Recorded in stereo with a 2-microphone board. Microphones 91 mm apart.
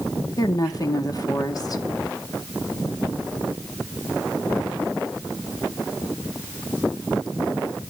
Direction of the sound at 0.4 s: 40° left (ahead or behind).